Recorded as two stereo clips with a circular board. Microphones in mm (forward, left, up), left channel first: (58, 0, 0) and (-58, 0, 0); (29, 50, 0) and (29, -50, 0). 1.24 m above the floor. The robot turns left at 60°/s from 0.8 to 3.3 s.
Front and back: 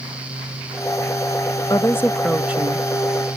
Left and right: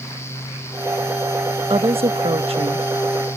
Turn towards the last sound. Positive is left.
turn(degrees=-150)